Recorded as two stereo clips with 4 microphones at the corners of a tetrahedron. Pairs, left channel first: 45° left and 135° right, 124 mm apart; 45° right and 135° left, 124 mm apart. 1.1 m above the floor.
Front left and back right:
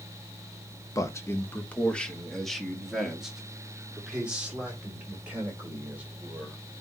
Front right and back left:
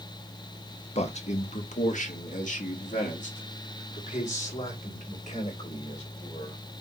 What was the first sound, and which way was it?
A man speaking, 15° right.